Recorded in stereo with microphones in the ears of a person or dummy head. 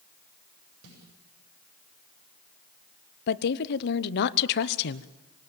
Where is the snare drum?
80° right, 8 m.